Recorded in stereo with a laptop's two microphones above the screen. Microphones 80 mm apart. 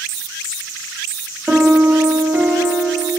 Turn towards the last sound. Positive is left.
turn(degrees=-15)  # may be behind; listen again after turning